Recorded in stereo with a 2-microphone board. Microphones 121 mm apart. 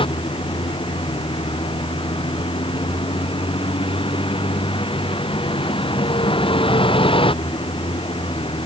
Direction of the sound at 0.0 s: 45° left (ahead or behind).